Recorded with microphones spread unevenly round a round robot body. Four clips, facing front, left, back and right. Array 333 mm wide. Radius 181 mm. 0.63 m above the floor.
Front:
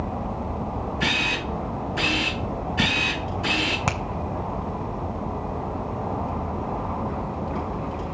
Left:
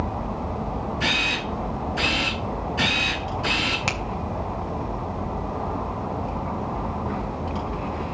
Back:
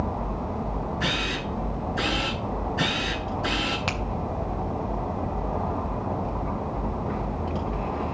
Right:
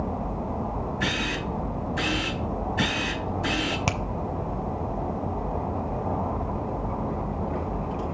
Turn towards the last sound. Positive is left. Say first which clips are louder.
# even, front 4 dB
turn(degrees=-30)